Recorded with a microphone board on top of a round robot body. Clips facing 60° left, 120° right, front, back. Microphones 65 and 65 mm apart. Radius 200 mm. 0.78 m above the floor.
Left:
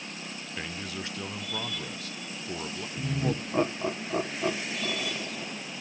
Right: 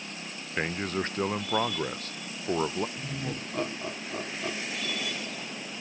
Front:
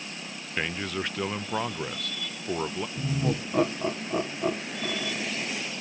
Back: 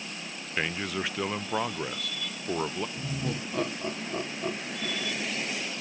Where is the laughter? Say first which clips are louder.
Left 5 dB, front 4 dB; 30° left, 1.1 m.